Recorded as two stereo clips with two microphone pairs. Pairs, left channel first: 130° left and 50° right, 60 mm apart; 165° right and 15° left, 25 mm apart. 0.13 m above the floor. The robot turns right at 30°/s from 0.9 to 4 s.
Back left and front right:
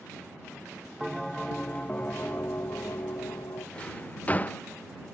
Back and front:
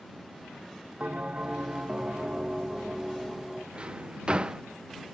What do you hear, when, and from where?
1.0 s a bell: 35° left; by 3.6 s 115° left
3.8 s a drawer: 60° left; by 4.6 s 65° left